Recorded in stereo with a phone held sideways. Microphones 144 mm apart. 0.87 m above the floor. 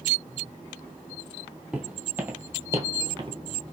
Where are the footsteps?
5° right (ahead or behind), 1.6 m; by 3.4 s 35° right (ahead or behind), 1.1 m.